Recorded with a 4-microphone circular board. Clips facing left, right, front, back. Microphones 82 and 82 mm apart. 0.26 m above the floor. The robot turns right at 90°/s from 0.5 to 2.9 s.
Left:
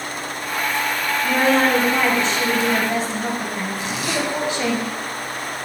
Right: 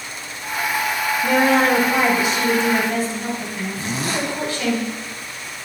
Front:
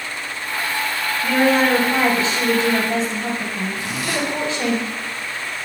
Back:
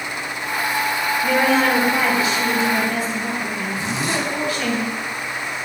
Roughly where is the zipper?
Behind right.